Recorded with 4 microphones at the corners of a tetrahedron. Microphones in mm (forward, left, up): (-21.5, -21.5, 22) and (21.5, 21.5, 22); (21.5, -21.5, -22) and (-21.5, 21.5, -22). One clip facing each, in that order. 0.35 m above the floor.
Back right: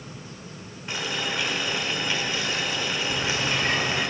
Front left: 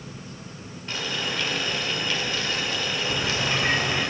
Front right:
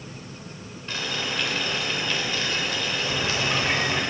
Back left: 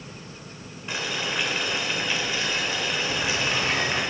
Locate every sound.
0.9 s boiling: straight behind, 1.1 m
3.1 s a bird: 10° right, 0.8 m